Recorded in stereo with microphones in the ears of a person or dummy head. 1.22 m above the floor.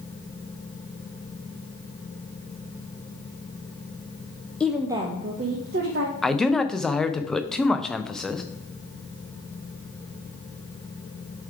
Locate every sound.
4.6 s a woman speaking: 5° left (ahead or behind), 0.5 m; by 6.1 s 55° right (ahead or behind), 1.2 m
6.2 s a man speaking: centre (ahead or behind), 0.6 m